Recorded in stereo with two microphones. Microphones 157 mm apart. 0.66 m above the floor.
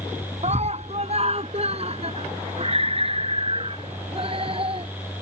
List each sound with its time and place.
0.4 s a scream: 50° right (ahead or behind); by 4.9 s 40° right (ahead or behind)